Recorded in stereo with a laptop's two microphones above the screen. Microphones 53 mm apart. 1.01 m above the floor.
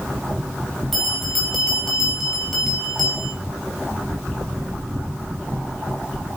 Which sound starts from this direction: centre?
A bell, at 0.9 s.